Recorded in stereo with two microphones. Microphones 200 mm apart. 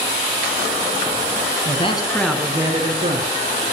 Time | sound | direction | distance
1.6 | a man speaking | 35° left (ahead or behind) | 1.3 m